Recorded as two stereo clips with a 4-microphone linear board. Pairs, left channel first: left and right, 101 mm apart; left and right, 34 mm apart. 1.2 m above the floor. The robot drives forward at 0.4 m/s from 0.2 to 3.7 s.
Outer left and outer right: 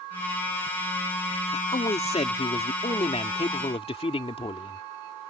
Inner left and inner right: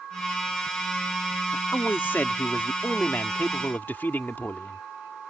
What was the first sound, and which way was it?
A man speaking, 85° left.